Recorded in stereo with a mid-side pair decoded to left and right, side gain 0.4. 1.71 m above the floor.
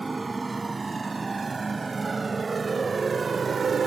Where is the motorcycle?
25° right; by 3.9 s 55° right.